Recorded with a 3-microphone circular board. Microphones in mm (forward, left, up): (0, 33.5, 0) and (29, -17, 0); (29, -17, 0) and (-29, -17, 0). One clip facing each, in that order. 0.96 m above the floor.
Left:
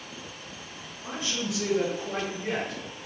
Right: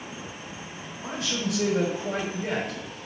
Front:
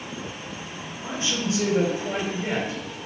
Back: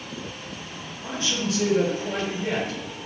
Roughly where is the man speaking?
Ahead right.